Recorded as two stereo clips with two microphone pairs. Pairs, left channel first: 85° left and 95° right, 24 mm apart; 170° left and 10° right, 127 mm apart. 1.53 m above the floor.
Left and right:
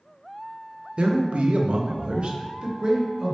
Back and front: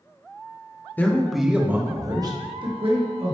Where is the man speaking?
115° right, 0.8 m; by 3.4 s 45° right, 1.2 m.